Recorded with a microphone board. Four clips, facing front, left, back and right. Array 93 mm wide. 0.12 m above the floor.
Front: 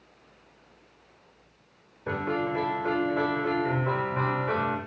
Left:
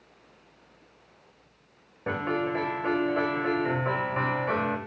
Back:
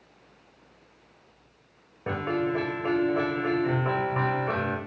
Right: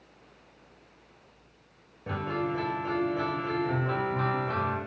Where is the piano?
135° left, 6.5 m.